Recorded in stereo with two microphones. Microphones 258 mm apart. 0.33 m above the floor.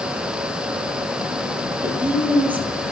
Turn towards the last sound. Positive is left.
turn(degrees=-5)  # may be behind; listen again after turning